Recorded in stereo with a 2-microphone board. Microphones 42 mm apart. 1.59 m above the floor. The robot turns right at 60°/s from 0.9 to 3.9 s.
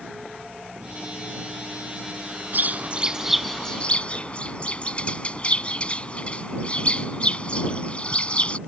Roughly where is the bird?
Ahead right.